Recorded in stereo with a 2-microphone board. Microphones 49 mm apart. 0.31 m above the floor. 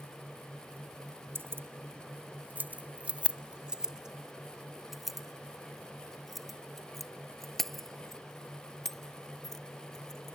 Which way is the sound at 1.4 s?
55° right (ahead or behind).